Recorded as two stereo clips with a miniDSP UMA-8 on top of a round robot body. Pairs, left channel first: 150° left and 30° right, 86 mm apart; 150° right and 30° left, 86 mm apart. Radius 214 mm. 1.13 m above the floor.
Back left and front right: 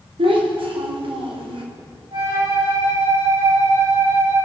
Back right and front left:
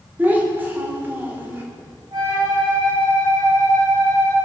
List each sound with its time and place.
0.2 s a child speaking: 40° right, 3 m
2.1 s a flute: 10° right, 6.5 m